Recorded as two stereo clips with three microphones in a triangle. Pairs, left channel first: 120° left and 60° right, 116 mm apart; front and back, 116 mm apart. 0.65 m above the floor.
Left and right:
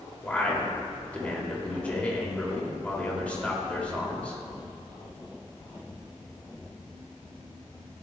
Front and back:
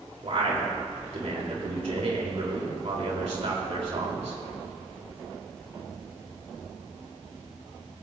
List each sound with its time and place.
0.2 s a man speaking: 165° right, 2.5 m